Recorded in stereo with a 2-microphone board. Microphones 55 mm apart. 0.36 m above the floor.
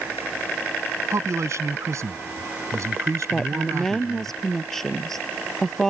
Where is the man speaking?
65° right (ahead or behind).